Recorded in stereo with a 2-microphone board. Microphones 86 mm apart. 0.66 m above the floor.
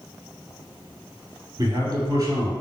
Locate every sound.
1.6 s a man speaking: 50° right (ahead or behind), 2 m